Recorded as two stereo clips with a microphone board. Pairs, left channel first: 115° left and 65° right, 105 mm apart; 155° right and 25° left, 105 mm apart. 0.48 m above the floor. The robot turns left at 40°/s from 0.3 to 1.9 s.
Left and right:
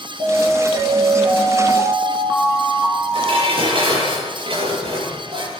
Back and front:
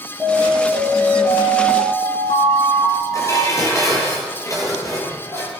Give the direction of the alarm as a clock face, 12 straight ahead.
2 o'clock.